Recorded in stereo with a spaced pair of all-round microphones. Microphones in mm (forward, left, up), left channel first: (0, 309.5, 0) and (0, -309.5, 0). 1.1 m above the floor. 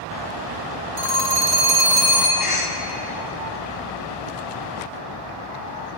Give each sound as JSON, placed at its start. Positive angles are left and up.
{"t": 1.0, "sound": "a phone ringing", "side_deg": 75, "distance_m": 1.4}
{"t": 2.4, "sound": "a cough", "side_deg": 55, "distance_m": 0.9}